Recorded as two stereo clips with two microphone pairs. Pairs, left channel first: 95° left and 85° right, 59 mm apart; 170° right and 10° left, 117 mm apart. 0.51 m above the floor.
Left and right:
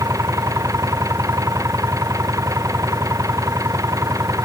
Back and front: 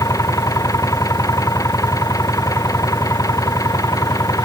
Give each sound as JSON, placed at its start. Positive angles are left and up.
{"t": 0.0, "sound": "an engine running", "azimuth_deg": -110}